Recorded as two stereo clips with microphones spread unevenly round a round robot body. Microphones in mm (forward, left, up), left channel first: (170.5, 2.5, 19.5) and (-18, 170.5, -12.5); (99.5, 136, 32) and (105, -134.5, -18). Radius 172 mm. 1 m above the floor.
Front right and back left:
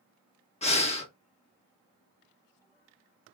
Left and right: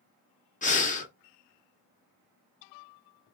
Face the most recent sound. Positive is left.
turn(degrees=25)